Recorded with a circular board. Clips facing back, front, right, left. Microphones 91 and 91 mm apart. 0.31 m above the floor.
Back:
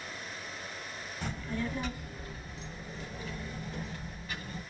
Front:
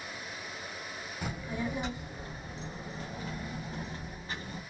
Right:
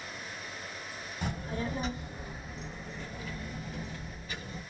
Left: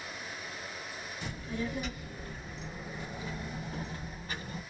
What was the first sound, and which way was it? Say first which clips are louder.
A child speaking: even, right 2 dB; 75° right.